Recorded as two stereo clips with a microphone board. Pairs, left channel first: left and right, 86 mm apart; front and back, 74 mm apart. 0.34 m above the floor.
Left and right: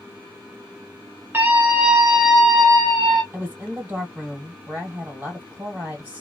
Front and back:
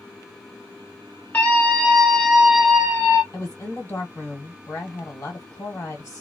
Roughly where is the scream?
Ahead right.